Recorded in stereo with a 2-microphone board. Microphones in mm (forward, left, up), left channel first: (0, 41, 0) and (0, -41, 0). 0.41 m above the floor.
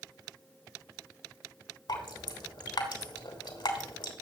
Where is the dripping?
70° left (ahead or behind), 3 m.